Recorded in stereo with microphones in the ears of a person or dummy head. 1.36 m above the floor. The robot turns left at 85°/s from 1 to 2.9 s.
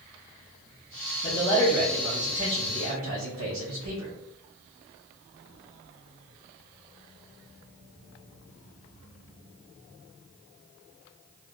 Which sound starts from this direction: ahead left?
A man speaking, at 1.2 s.